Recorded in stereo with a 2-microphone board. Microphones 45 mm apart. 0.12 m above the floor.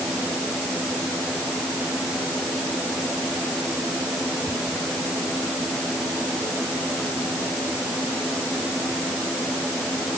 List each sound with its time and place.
Only background noise.